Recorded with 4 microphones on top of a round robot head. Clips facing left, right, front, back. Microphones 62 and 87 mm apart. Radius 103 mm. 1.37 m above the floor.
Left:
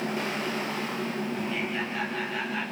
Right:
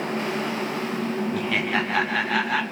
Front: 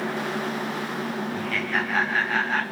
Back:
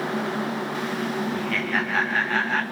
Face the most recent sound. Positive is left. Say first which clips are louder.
# right 6 dB, back 1 dB
turn(degrees=-85)